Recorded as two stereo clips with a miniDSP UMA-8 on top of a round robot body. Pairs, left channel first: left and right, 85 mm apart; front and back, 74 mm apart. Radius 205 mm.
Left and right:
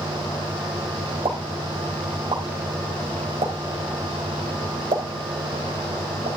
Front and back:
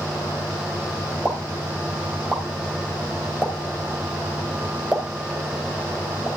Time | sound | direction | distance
1.2 | a pop | 105° right | 3.5 m